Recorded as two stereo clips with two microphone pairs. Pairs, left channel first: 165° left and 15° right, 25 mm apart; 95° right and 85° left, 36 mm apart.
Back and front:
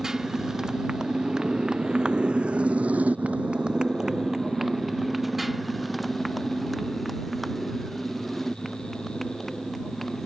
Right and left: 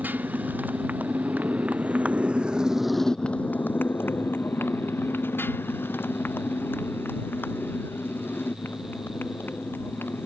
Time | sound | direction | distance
0.0 | a motorcycle | 50° left | ?